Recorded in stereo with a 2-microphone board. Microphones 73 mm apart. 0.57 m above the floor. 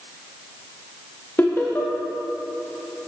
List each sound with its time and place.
1.4 s laughter: 30° left (ahead or behind), 0.7 m